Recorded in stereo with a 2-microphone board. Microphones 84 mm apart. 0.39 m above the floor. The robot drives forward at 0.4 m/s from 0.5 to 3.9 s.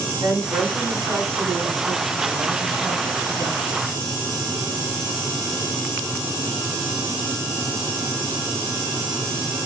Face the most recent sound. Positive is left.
turn(degrees=-40)  # may be behind; listen again after turning